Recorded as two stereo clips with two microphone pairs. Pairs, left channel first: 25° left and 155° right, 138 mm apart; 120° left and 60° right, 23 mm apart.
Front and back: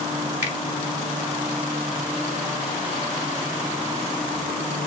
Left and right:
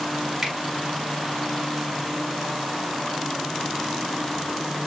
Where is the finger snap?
115° right, 1.3 m.